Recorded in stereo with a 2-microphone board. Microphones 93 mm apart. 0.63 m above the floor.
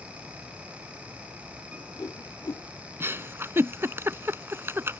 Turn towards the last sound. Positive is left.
turn(degrees=-25)  # may be behind; listen again after turning